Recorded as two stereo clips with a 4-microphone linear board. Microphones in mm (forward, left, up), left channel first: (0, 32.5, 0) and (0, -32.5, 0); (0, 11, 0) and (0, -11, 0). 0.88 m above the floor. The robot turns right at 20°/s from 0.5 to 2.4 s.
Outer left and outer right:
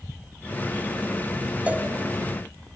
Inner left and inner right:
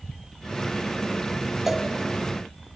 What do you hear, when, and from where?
1.7 s a cowbell: 20° right (ahead or behind), 1.6 m; by 1.9 s 25° right (ahead or behind), 1.6 m